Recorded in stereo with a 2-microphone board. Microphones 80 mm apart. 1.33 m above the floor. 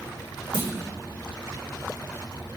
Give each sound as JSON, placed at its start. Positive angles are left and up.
{"t": 0.5, "sound": "a clunk", "side_deg": -70, "distance_m": 1.3}